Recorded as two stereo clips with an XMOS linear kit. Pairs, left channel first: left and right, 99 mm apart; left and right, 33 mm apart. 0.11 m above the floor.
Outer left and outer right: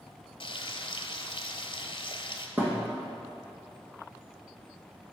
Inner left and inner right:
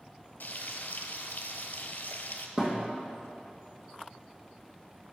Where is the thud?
20° right (ahead or behind), 2.0 m.